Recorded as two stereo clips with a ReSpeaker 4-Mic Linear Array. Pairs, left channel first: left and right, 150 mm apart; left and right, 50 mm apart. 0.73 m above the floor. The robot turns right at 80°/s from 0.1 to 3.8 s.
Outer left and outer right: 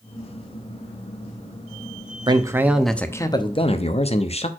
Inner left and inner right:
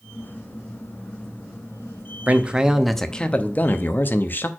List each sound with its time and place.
2.3 s a man speaking: 45° right, 0.7 m; by 4.5 s 75° left, 0.7 m